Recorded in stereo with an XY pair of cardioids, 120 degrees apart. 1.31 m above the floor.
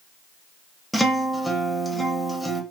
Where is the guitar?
5° left, 1.0 m.